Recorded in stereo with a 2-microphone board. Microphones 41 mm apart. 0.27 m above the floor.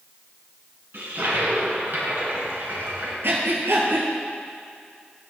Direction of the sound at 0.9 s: 70° right (ahead or behind).